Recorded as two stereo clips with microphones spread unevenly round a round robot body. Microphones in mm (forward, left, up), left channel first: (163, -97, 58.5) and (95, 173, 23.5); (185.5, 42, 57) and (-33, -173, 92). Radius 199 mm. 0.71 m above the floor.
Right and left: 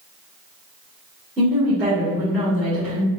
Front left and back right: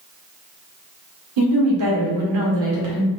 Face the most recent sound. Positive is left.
turn(degrees=-165)